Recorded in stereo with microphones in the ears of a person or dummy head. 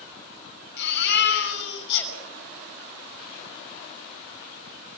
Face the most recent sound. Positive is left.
turn(degrees=75)  # may be behind; listen again after turning